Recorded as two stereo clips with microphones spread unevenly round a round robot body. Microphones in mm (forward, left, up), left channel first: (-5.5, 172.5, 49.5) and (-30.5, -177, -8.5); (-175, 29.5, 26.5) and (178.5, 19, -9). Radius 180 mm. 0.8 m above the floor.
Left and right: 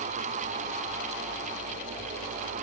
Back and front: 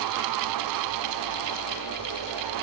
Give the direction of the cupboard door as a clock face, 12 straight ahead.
No cupboard door in this recording.